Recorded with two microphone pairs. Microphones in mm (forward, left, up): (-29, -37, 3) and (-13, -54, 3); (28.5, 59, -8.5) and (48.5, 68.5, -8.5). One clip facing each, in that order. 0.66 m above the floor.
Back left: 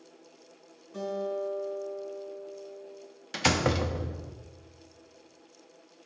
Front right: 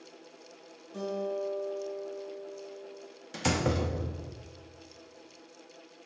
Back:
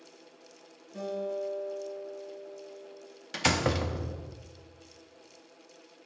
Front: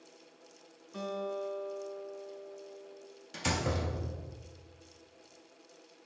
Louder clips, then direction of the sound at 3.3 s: Back left 3 dB, back 6 dB; 165° left.